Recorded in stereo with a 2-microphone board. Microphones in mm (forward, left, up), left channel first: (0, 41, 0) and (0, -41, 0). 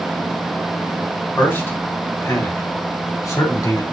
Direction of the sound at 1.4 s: 25° left (ahead or behind).